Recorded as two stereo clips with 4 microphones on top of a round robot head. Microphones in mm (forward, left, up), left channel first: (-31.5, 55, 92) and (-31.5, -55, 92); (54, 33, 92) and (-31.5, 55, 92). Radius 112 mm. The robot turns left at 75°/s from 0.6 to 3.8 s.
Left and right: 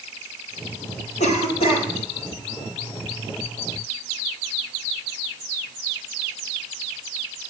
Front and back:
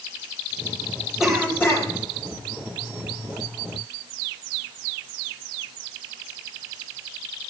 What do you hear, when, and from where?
1.2 s a cough: 85° left, 4.5 m; by 1.9 s 35° left, 4.5 m